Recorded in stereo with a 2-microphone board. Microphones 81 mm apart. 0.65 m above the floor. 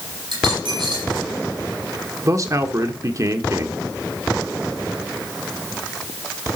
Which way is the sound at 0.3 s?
75° right (ahead or behind).